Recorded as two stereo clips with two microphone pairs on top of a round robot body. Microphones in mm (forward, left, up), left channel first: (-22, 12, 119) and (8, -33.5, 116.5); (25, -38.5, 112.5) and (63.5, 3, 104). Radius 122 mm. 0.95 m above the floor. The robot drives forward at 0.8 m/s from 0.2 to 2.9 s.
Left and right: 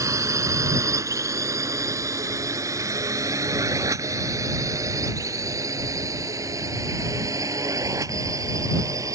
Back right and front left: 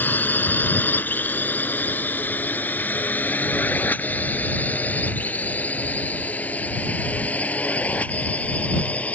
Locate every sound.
0.0 s a drone: 80° right; by 9.1 s 70° right